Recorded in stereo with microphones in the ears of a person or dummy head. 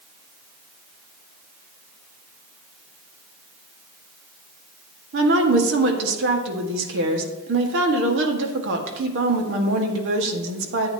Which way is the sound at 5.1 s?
75° right (ahead or behind).